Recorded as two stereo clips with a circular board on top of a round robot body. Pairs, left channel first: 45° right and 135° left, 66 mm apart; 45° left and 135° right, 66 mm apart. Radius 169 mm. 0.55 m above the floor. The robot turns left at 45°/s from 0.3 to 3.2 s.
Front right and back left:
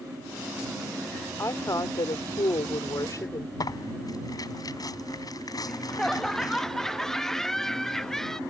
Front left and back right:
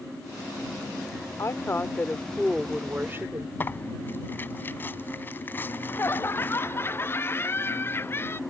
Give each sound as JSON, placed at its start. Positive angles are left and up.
{"t": 1.4, "sound": "a woman speaking", "azimuth_deg": 0}
{"t": 3.6, "sound": "tearing paper", "azimuth_deg": -15}
{"t": 5.6, "sound": "laughter", "azimuth_deg": 35}